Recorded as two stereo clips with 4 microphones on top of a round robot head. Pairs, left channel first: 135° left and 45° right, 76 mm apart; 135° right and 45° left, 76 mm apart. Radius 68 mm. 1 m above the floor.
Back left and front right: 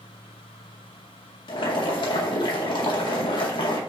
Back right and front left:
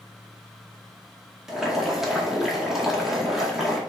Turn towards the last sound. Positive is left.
turn(degrees=135)